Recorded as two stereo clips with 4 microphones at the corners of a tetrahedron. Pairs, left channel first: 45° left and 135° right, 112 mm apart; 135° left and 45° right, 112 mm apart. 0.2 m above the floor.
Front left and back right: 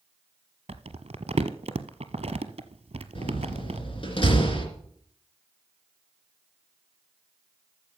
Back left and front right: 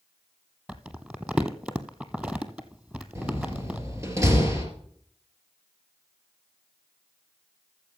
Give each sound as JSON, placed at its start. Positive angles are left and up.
{"t": 0.7, "sound": "crumpling", "azimuth_deg": -125, "distance_m": 0.8}
{"t": 3.1, "sound": "a door slam", "azimuth_deg": 15, "distance_m": 2.5}